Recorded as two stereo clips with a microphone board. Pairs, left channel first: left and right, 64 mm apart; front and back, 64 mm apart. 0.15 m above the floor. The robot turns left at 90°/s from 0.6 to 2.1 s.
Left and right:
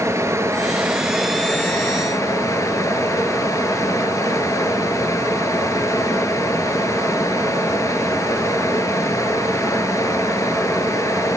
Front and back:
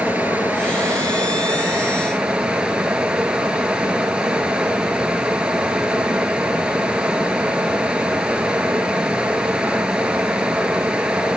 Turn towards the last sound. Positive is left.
turn(degrees=105)